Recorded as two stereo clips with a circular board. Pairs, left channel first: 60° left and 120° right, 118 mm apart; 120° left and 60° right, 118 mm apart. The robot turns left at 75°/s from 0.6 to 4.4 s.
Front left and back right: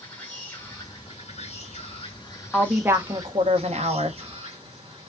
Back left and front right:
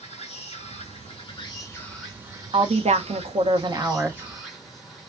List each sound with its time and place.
0.0 s an insect: 135° left, 1.6 m; by 5.1 s 150° right, 1.6 m
2.5 s a woman speaking: 25° right, 0.7 m; by 4.2 s 150° right, 0.7 m